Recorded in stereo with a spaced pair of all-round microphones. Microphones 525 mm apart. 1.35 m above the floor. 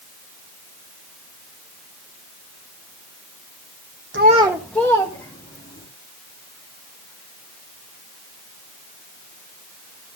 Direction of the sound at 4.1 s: 25° right (ahead or behind).